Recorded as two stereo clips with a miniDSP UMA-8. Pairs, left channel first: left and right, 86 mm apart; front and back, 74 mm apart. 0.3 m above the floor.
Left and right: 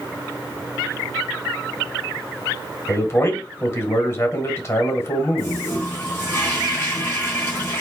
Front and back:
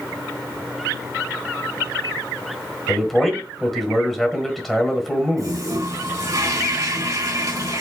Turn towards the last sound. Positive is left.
turn(degrees=155)